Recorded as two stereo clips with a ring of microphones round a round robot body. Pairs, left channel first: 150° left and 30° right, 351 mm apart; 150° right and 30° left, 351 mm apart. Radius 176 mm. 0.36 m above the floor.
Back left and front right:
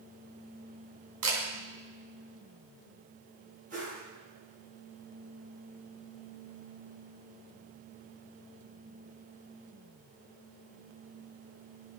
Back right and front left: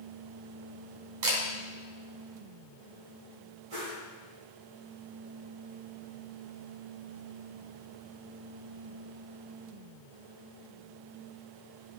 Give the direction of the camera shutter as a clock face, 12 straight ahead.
12 o'clock.